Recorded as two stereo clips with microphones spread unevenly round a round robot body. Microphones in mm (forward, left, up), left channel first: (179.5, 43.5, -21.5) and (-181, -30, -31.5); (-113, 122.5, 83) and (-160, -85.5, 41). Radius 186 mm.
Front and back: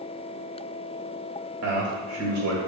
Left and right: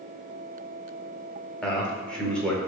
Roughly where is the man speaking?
Behind.